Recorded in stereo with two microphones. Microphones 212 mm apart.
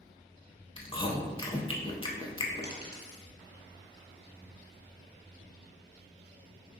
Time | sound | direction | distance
0.8 | chewing | 25° left (ahead or behind) | 0.5 m
2.6 | a dropped coin | 55° right (ahead or behind) | 1.4 m